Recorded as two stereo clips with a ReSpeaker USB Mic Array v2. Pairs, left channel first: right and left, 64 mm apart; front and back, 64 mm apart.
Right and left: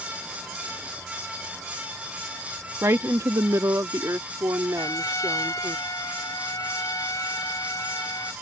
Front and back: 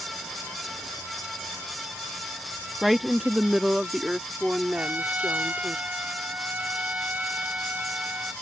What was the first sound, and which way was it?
A woman speaking, 90° left.